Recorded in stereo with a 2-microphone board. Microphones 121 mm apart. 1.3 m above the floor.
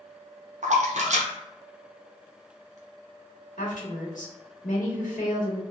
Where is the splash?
65° right (ahead or behind), 0.7 m.